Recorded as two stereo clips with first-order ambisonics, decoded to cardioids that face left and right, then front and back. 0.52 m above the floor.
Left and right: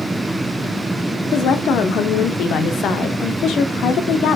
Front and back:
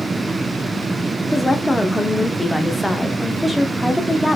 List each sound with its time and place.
1.3 s a woman speaking: 80° left, 0.9 m